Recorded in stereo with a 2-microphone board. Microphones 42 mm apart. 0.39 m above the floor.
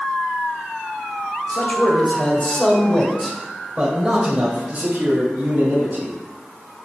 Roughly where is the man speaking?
Left.